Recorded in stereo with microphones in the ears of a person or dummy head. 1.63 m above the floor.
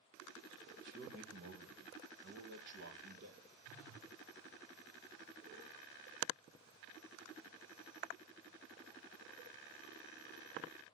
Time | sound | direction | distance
0.8 | a man speaking | 55° right (ahead or behind) | 1.5 m
3.6 | a phone buzzing | 50° right (ahead or behind) | 3.5 m